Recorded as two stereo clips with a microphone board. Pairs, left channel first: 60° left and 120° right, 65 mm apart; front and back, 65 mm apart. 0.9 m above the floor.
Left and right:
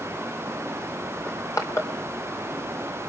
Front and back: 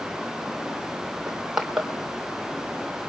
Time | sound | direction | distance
1.3 | crushing | 95° left | 3 m